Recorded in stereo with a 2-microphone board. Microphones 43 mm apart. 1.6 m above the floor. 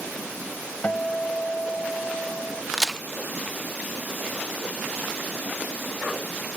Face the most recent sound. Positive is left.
turn(degrees=-10)  # may be behind; listen again after turning